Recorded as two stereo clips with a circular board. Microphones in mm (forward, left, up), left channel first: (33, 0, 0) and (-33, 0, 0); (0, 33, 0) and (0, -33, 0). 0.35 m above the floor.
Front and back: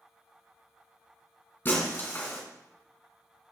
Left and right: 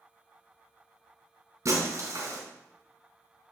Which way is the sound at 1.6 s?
55° right.